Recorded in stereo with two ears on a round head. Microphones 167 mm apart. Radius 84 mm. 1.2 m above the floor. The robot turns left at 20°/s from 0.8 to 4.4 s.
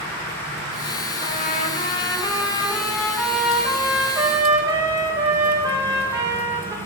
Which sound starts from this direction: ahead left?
A trumpet, at 1.2 s.